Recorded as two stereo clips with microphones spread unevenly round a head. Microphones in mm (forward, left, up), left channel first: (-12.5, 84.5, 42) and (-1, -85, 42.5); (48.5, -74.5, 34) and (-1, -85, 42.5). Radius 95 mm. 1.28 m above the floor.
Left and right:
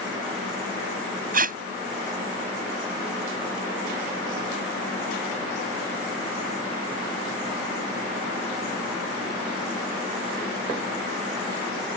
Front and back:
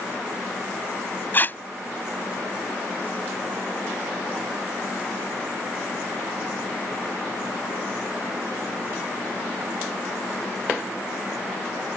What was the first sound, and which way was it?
Tape being pulled, 40° right.